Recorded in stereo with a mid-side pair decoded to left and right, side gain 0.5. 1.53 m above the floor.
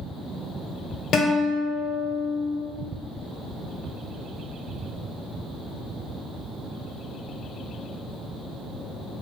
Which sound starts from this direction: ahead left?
A guitar, at 1.1 s.